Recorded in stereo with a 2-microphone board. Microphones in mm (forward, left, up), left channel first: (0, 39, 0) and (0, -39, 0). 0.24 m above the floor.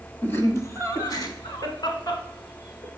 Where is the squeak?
I don't hear a squeak.